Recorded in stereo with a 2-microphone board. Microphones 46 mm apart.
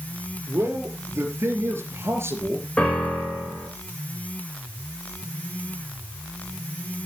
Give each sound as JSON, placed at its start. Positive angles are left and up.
{"t": 0.5, "sound": "a man speaking", "side_deg": -70, "distance_m": 4.0}
{"t": 2.8, "sound": "a piano", "side_deg": 20, "distance_m": 8.0}